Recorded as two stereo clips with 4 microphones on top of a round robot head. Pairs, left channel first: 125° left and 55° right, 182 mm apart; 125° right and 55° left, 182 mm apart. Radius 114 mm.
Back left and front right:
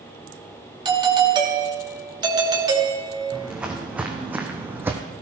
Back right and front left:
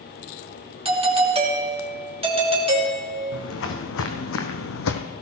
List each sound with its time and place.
0.8 s a doorbell: 5° left, 2.5 m
3.3 s footsteps: 135° right, 2.5 m; by 5.0 s 130° right, 1.2 m